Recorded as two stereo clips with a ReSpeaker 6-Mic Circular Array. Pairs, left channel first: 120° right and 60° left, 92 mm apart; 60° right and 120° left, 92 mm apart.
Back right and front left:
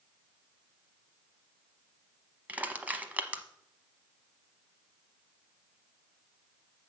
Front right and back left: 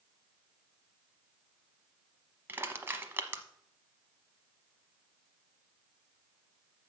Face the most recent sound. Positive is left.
turn(degrees=105)